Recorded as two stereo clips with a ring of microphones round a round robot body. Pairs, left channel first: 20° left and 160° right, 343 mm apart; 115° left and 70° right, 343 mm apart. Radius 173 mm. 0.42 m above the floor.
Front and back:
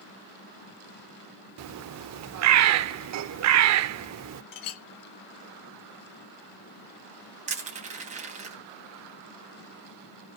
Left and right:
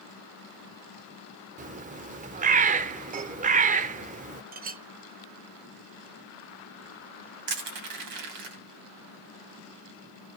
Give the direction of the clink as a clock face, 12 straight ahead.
12 o'clock.